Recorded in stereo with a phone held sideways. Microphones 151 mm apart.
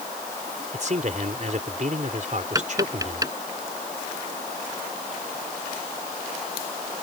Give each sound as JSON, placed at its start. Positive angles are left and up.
{"t": 0.7, "sound": "a man speaking", "side_deg": -55}
{"t": 2.5, "sound": "tapping", "side_deg": -25}